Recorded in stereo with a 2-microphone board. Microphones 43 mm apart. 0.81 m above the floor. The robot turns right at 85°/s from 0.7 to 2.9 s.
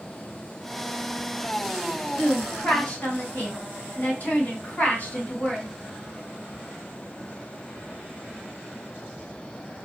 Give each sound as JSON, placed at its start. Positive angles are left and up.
{"t": 2.2, "sound": "a woman speaking", "azimuth_deg": 50, "distance_m": 1.5}